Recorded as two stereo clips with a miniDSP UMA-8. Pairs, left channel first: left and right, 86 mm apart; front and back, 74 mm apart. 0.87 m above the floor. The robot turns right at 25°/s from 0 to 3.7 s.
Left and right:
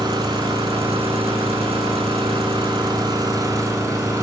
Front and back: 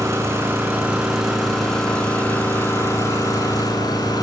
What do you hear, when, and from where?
0.0 s an engine running: 130° right, 6 m; by 4.2 s 35° right, 6 m